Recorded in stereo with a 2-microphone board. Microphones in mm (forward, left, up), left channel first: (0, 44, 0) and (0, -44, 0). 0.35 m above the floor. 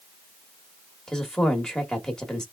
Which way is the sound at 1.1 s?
10° left (ahead or behind).